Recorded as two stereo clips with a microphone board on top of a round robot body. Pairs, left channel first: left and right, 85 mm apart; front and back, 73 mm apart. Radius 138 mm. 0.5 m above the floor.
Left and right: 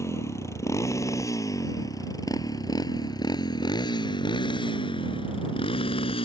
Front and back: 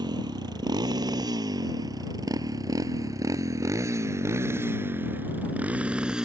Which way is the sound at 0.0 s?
150° left.